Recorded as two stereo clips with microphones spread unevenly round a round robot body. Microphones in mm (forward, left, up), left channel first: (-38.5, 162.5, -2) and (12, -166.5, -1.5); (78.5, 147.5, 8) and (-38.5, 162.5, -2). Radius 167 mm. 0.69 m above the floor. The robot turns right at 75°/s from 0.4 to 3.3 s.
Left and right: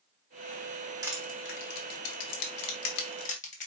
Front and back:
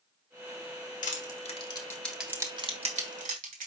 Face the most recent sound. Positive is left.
turn(degrees=170)